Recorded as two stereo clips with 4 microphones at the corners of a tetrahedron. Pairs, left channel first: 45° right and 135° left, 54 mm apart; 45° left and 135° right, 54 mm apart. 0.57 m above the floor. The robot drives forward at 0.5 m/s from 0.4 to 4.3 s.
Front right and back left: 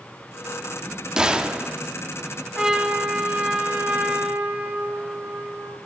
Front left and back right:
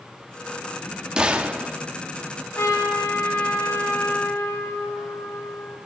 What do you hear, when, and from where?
1.2 s a gunshot: straight behind, 0.9 m
2.5 s a trumpet: 60° left, 2.5 m; by 5.8 s 80° left, 2 m